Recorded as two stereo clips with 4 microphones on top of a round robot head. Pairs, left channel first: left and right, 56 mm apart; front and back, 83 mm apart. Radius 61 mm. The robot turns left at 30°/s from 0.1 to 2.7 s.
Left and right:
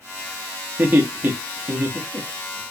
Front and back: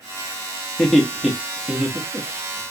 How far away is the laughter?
About 0.9 m.